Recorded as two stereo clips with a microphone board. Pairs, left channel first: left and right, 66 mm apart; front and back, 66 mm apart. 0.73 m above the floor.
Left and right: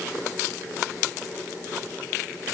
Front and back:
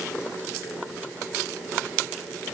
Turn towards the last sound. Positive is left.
No sound to turn to.